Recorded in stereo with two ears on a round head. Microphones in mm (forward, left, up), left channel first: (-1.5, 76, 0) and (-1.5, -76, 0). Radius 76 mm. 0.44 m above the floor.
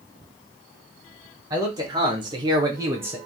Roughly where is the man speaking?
Right.